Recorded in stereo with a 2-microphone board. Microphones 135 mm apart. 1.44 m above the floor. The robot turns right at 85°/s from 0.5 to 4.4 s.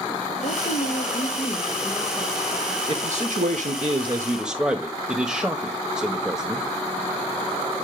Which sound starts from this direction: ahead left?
A woman speaking, at 0.4 s.